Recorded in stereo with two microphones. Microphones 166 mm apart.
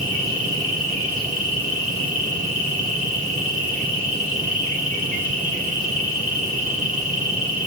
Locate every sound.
0.0 s an insect: 55° right (ahead or behind), 1.7 m